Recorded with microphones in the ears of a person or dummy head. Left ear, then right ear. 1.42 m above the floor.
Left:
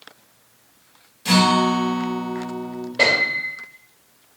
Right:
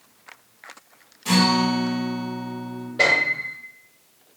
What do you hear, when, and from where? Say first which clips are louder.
1.2 s a guitar: left 3 dB; 25° left (ahead or behind), 1.4 m
3.0 s a piano: left 1 dB; 15° left (ahead or behind), 1.8 m